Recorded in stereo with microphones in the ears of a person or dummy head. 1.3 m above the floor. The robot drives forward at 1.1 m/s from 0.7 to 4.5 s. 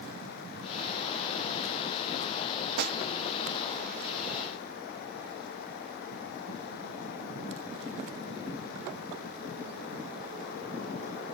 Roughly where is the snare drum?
Right.